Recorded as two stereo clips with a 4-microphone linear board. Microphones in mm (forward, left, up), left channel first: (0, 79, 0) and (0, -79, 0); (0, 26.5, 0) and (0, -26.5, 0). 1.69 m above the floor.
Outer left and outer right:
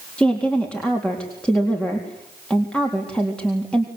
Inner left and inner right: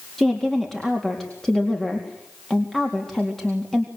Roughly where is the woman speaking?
Centre.